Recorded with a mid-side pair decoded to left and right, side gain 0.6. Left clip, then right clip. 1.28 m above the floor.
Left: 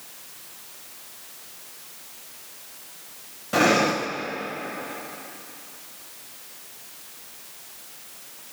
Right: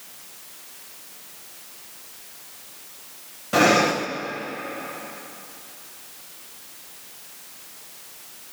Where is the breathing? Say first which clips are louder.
Right 2 dB; 10° right, 0.7 m.